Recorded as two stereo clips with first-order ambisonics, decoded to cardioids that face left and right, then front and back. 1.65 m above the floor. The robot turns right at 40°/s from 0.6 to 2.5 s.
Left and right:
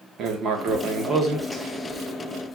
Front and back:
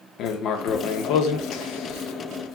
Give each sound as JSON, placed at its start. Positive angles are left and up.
{"t": 0.2, "sound": "writing", "azimuth_deg": -40, "distance_m": 1.3}